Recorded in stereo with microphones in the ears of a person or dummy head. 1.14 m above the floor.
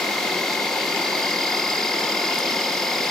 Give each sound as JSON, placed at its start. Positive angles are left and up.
{"t": 0.0, "sound": "an insect", "side_deg": 5}